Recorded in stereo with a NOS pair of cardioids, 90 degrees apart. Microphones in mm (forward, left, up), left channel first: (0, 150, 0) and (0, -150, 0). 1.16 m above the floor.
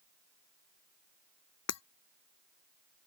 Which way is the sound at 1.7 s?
60° left.